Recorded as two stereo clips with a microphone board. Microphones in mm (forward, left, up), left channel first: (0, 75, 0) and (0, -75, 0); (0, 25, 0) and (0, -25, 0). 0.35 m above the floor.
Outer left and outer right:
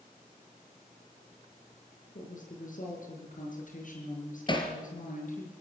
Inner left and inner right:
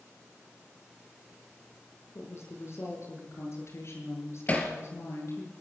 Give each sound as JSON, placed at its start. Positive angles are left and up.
{"t": 2.1, "sound": "a woman speaking", "side_deg": 60, "distance_m": 7.0}
{"t": 4.5, "sound": "hammering", "side_deg": 30, "distance_m": 3.5}